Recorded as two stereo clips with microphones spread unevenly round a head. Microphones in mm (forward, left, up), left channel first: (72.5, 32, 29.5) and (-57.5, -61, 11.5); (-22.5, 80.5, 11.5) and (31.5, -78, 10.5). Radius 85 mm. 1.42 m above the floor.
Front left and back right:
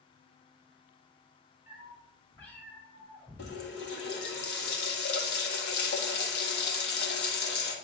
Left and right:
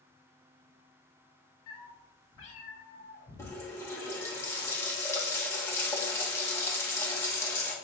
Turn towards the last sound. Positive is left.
turn(degrees=35)